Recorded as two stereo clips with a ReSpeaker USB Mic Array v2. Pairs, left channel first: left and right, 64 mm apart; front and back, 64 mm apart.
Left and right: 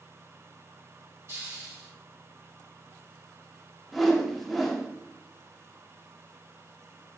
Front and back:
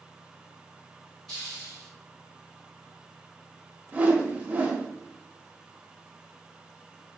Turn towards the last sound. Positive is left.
turn(degrees=180)